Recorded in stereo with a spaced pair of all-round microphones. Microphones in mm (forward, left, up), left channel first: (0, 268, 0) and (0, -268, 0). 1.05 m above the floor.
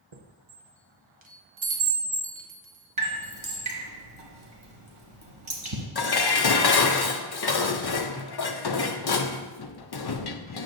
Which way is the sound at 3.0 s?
60° right (ahead or behind).